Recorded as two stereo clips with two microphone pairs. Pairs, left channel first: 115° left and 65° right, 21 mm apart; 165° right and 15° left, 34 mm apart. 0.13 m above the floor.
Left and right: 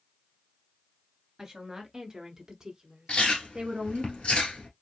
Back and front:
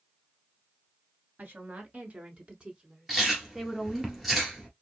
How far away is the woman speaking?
About 2.0 m.